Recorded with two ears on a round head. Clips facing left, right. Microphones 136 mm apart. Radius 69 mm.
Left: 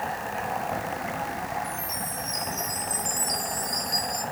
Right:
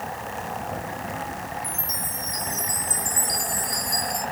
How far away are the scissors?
No scissors in this recording.